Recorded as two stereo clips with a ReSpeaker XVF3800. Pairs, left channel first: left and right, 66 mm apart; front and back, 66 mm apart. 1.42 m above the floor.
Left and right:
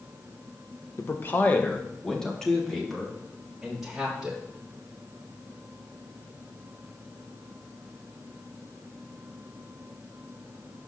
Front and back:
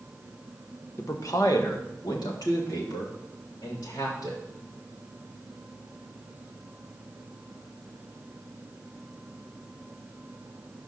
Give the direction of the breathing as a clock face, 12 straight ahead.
I don't hear breathing.